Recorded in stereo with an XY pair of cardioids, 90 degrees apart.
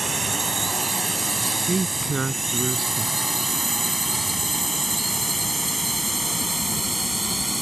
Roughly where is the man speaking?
Ahead right.